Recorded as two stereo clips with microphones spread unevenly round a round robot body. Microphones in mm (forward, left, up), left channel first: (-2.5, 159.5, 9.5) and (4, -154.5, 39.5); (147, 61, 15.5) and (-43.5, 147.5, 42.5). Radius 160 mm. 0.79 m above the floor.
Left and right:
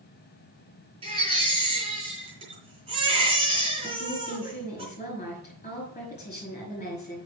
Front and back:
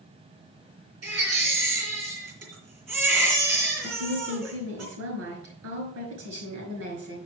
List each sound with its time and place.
1.0 s a baby crying: 160° right, 3.5 m
3.8 s a woman speaking: 160° left, 5 m